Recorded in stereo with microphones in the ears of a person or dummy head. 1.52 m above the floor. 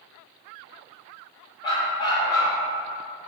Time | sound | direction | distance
1.6 | a dog barking | 20° left (ahead or behind) | 1.1 m